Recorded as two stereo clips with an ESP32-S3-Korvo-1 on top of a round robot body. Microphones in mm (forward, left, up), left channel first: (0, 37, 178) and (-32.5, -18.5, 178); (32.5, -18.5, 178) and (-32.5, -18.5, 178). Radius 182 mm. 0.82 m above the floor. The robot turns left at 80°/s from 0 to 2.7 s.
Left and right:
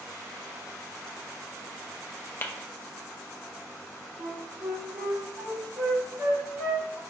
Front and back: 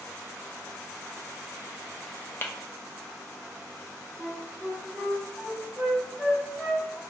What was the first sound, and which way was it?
Tapping, 25° left.